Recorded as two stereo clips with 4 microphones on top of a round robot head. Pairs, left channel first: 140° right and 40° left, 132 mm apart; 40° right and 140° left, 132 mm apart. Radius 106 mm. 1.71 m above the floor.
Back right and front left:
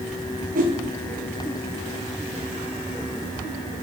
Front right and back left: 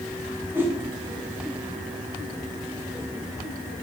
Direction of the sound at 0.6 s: 65° left.